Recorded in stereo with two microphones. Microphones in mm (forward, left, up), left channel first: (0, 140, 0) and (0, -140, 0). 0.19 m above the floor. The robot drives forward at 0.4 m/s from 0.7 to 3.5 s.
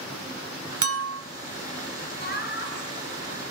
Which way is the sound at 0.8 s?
55° right (ahead or behind).